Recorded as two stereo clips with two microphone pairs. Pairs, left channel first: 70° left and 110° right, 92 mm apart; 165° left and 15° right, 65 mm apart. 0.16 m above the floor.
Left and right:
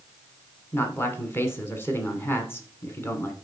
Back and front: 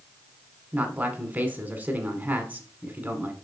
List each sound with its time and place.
0.7 s a man speaking: 30° left, 1.5 m